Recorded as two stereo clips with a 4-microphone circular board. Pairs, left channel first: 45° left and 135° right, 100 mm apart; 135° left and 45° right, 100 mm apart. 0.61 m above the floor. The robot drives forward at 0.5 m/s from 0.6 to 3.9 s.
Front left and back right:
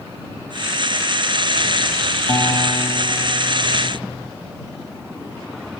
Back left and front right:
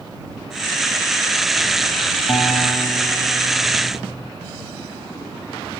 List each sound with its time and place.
2.3 s a guitar: 95° left, 1.1 m; by 4.3 s 125° left, 1.4 m